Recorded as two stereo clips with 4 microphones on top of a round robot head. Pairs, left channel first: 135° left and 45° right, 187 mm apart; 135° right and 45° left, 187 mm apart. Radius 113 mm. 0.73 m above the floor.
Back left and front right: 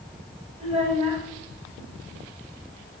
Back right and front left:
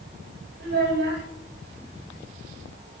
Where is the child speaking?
15° left, 1.3 m.